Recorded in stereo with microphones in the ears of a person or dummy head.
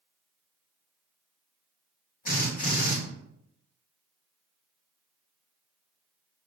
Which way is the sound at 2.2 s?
45° left (ahead or behind).